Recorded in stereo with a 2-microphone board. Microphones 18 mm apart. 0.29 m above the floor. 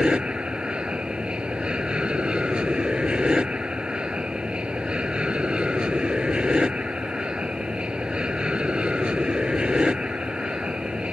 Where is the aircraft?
70° right (ahead or behind).